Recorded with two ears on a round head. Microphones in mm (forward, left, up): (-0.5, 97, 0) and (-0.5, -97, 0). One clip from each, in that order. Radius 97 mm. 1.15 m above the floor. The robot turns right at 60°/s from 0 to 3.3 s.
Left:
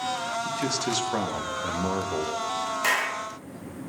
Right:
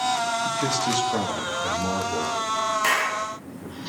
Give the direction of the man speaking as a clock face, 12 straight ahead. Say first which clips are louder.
Right 4 dB; 12 o'clock.